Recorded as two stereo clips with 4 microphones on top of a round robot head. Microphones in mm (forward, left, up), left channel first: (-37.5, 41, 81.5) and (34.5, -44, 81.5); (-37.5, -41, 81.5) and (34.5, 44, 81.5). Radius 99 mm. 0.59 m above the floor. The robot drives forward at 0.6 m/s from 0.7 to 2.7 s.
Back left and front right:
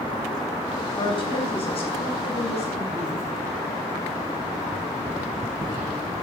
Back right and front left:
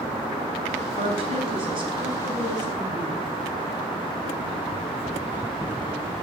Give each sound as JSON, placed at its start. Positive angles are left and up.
{"t": 0.9, "sound": "a woman speaking", "azimuth_deg": 85, "distance_m": 3.5}